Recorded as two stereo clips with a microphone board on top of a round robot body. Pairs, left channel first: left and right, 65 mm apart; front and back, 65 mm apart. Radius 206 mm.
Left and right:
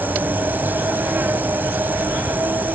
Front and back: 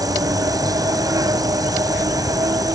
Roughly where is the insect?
Behind right.